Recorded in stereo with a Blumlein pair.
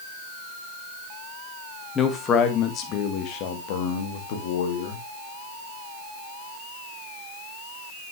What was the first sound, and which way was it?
A man speaking, 20° left.